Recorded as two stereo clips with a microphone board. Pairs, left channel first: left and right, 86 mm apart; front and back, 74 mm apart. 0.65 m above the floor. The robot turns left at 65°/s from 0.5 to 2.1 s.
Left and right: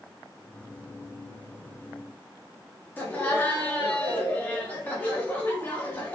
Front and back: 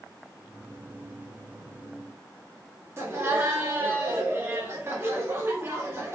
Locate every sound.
3.0 s laughter: 150° left, 1.0 m